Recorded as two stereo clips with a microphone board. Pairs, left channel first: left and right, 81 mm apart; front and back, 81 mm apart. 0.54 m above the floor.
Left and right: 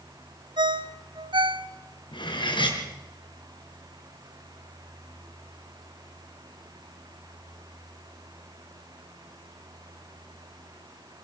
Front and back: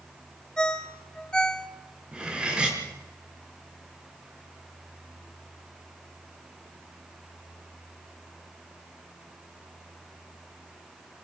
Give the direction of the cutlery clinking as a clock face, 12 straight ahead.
9 o'clock.